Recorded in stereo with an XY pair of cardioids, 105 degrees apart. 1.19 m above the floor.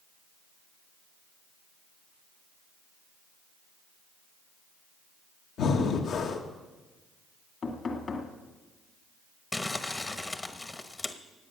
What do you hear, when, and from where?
5.6 s breathing: 65° left, 1.5 m
7.6 s knocking: 45° left, 2.0 m
9.5 s crumpling: 20° left, 1.1 m